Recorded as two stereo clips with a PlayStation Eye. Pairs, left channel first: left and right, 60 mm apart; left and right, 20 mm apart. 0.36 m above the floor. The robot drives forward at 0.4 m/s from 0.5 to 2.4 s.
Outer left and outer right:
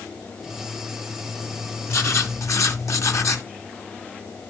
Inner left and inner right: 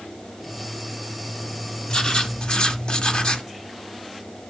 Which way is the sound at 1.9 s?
50° left (ahead or behind).